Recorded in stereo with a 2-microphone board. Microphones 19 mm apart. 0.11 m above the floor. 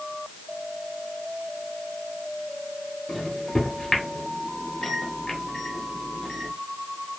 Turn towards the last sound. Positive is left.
turn(degrees=35)  # may be behind; listen again after turning